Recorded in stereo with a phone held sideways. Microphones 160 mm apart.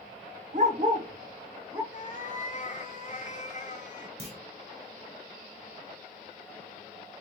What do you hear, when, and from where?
0.5 s a dog barking: 55° right (ahead or behind), 1.1 m; by 1.8 s 20° right (ahead or behind), 1.4 m
1.9 s a cat meowing: 50° left (ahead or behind), 0.7 m
4.2 s a clunk: 40° right (ahead or behind), 1.4 m